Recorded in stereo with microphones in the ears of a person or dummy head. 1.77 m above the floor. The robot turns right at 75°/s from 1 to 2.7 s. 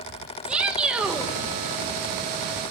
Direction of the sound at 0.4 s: 10° right (ahead or behind).